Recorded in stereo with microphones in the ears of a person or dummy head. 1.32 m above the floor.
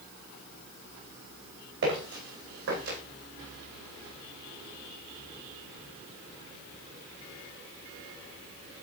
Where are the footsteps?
70° right (ahead or behind), 4.5 m; by 3.0 s 65° right (ahead or behind), 3 m.